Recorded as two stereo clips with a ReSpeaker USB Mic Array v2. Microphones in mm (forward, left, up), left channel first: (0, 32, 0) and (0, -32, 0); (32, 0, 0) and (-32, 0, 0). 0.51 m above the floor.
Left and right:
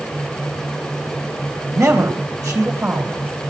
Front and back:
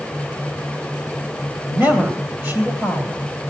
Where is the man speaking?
130° right, 2.5 m.